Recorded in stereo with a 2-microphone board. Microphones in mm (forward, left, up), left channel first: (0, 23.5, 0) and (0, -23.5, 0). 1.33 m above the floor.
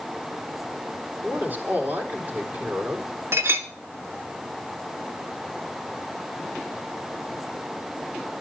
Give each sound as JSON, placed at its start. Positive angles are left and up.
{"t": 1.2, "sound": "a man speaking", "side_deg": -35, "distance_m": 3.5}
{"t": 3.3, "sound": "a clink", "side_deg": -65, "distance_m": 1.3}